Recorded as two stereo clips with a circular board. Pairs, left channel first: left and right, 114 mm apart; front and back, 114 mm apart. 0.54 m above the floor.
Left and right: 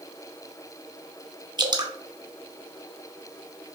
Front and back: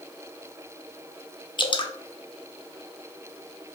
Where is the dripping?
40° right, 0.6 m.